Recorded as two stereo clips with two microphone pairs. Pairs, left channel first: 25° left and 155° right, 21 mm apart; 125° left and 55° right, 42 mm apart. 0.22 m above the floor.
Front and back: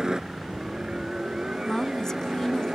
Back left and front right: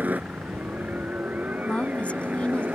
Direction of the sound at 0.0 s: 100° right.